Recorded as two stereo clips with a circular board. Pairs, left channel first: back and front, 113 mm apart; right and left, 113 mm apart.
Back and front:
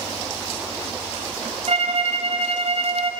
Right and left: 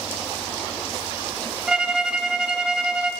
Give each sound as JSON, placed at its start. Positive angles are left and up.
{"t": 1.7, "sound": "a violin", "azimuth_deg": 10, "distance_m": 2.0}